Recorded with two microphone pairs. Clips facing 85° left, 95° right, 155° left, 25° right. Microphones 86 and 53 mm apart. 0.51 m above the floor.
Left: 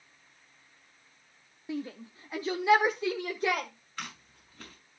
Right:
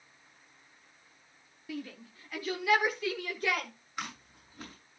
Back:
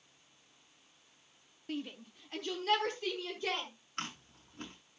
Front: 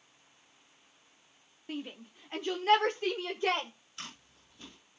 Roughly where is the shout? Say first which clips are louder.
Left 4 dB, even; ahead left.